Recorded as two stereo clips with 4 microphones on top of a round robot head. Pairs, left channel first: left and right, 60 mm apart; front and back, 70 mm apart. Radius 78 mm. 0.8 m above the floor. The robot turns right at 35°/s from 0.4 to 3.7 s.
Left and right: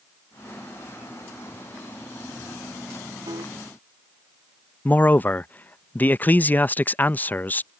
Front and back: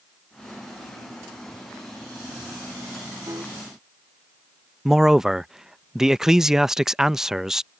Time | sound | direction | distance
3.3 | a piano | 125° right | ?
4.8 | a man speaking | 105° left | ?